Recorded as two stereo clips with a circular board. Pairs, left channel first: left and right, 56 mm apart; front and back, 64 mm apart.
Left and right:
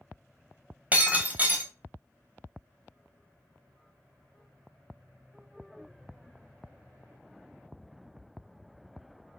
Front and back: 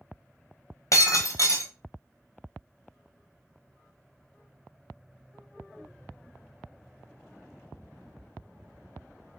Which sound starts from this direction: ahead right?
Breaking glass, at 0.9 s.